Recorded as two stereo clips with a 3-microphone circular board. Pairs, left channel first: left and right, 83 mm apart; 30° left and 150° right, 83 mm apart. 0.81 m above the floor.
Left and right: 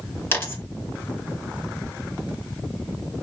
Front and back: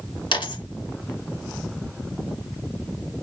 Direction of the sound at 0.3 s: 25° left.